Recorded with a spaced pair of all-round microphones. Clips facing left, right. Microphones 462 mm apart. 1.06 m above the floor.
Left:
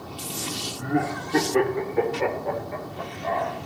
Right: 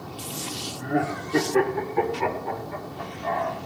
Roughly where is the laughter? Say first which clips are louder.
Left 1 dB; left.